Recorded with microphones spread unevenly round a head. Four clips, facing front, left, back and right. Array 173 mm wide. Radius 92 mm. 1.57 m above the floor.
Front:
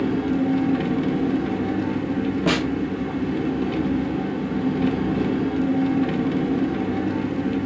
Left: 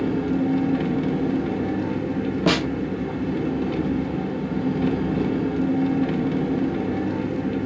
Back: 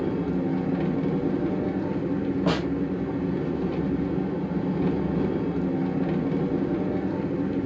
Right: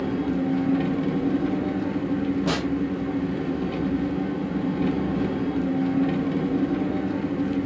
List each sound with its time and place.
0.0 s an engine running: 10° left, 1.1 m
2.5 s a snare drum: 35° left, 0.5 m